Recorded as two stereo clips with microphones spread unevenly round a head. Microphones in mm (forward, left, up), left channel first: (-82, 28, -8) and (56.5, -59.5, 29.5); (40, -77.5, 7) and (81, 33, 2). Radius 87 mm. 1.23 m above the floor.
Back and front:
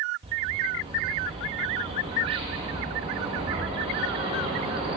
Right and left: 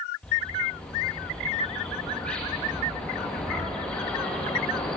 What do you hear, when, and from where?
0.2 s a bird: 35° right, 0.7 m